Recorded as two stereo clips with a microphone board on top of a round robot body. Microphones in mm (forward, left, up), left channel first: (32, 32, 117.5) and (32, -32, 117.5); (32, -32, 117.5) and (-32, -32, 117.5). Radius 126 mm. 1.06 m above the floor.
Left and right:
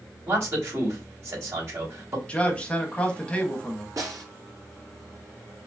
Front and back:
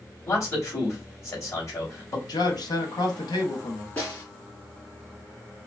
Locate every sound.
0.3 s a man speaking: 45° right, 2.5 m
2.3 s a man speaking: 20° left, 1.2 m
4.0 s a snare drum: 55° right, 3 m